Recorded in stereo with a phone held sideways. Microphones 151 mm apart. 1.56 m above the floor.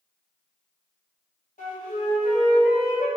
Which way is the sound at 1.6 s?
55° left (ahead or behind).